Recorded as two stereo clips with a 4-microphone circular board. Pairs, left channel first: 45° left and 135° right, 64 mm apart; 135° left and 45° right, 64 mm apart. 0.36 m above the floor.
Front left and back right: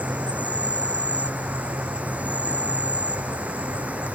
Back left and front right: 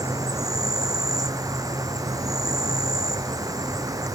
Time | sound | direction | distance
0.0 | an insect | 65° right | ?